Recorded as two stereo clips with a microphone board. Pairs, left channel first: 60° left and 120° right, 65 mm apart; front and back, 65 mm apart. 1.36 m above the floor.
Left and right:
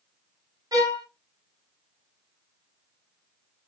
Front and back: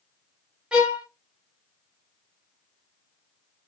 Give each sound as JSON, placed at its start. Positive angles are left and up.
{"t": 0.7, "sound": "a violin", "azimuth_deg": -105, "distance_m": 1.1}